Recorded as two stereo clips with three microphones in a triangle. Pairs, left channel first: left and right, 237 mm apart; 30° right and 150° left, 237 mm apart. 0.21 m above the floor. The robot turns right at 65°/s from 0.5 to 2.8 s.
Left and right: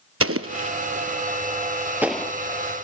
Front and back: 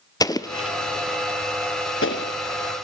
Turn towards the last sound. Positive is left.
turn(degrees=45)